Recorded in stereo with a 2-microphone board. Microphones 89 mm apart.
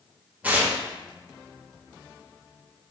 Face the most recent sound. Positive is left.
turn(degrees=-15)  # may be behind; listen again after turning